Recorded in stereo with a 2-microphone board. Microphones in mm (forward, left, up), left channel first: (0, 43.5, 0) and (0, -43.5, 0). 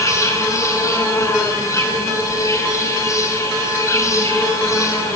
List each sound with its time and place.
0.0 s an insect: 35° left (ahead or behind), 9.5 m